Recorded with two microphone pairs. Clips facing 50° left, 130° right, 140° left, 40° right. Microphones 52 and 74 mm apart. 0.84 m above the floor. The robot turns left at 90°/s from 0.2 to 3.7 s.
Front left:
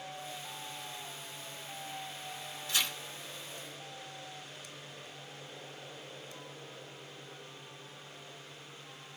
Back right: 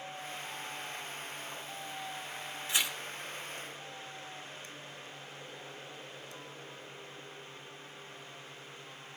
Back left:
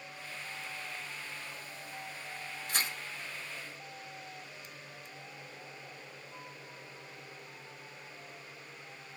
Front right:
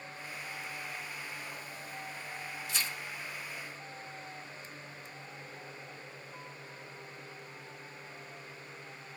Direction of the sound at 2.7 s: 170° left.